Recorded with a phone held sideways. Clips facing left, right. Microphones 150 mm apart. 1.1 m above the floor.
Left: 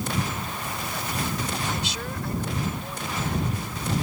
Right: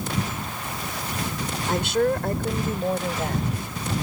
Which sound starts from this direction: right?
A woman speaking, at 1.7 s.